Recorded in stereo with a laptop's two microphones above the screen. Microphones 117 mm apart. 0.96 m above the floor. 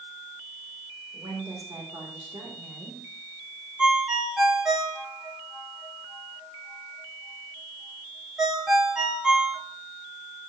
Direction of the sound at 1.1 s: 40° right (ahead or behind).